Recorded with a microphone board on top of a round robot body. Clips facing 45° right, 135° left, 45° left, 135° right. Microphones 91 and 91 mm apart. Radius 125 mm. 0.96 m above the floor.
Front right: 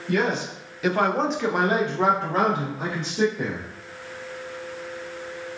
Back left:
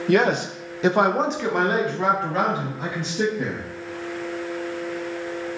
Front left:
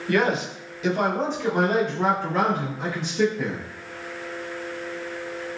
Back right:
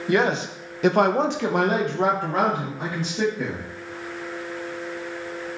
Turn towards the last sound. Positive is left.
turn(degrees=-85)